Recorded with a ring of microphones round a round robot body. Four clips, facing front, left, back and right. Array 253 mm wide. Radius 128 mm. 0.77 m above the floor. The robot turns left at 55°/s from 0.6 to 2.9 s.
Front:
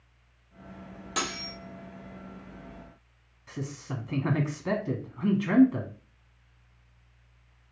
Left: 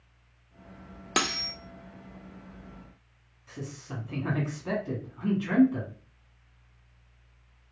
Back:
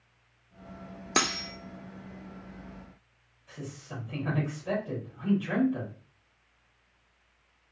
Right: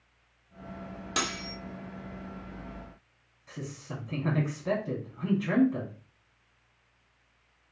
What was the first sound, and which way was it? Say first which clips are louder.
Cutlery clinking: left 4 dB, back 4 dB; 145° left.